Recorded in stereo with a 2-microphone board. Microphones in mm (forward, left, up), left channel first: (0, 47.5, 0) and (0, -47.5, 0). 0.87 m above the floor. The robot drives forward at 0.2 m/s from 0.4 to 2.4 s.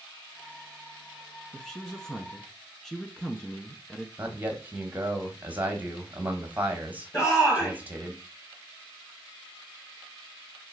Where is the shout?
35° left (ahead or behind), 1.7 m.